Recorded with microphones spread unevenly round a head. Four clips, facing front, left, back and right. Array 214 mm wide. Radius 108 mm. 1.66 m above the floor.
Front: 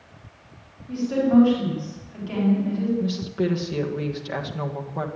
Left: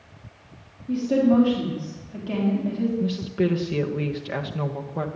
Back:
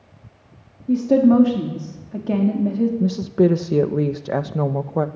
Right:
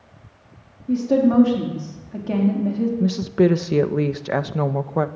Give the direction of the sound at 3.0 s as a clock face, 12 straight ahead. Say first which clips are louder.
Right 6 dB, back 8 dB; 5 o'clock.